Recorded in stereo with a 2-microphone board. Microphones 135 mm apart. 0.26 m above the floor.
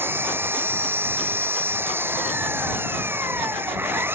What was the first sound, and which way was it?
An engine running, 15° right (ahead or behind).